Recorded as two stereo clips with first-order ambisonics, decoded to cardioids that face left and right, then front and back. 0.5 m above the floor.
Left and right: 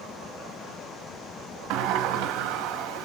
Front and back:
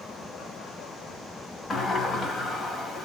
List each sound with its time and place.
1.7 s a sliding door: 70° right, 0.8 m